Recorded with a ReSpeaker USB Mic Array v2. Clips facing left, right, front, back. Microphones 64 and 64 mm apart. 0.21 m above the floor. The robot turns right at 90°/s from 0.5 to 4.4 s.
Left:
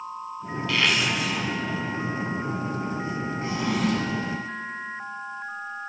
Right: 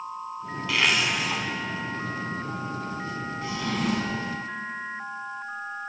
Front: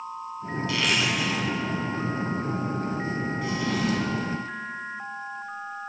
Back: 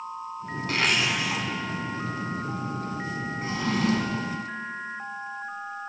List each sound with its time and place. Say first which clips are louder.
0.7 s a zipper: even, back 1 dB; 170° right, 0.9 m; by 1.4 s 105° right, 0.9 m
3.4 s a drawer: left 2 dB, back 3 dB; 135° left, 1.1 m; by 4.3 s 145° right, 1.1 m